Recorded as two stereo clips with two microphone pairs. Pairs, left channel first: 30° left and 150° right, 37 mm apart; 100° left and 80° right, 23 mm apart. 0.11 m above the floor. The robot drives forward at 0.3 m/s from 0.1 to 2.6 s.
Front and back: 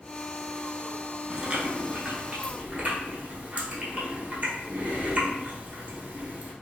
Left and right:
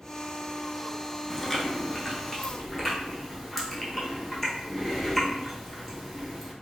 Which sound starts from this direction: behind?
Chewing, at 1.3 s.